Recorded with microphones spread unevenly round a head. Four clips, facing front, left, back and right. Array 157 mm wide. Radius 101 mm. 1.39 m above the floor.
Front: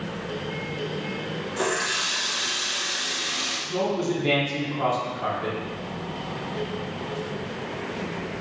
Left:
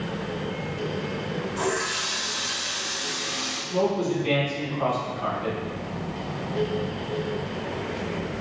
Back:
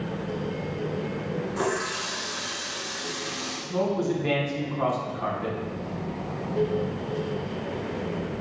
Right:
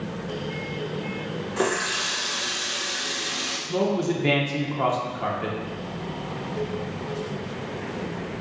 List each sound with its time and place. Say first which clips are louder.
1.6 s a running tap: right 4 dB, front 3 dB; 100° right, 0.7 m
3.7 s a man speaking: even, even; 95° right, 0.9 m